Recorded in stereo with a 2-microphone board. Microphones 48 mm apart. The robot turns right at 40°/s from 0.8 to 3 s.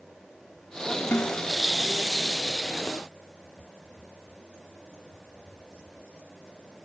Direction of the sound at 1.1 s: 45° left (ahead or behind).